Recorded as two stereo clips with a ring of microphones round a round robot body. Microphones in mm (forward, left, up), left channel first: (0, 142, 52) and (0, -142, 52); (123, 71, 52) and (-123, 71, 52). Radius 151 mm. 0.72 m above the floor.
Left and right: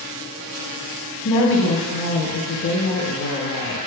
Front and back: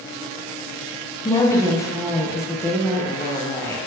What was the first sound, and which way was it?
A woman speaking, 75° left.